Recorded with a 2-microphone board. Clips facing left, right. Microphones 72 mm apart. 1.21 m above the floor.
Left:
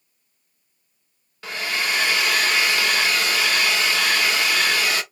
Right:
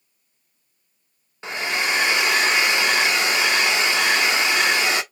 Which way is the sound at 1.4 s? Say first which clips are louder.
Right 2 dB; 25° right (ahead or behind).